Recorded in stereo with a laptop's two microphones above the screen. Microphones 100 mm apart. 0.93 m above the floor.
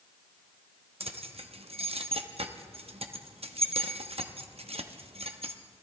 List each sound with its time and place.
1.0 s keys jangling: 85° right, 0.8 m